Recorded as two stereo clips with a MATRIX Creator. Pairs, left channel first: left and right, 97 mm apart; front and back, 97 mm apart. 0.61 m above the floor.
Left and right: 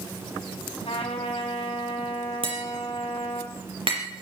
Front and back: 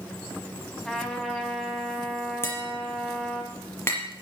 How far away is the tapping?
About 5.5 m.